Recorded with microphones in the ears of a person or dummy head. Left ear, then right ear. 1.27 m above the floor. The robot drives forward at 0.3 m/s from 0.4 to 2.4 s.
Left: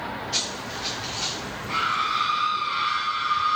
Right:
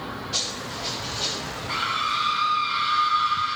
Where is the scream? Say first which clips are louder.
Left 1 dB; 5° right (ahead or behind), 4 m.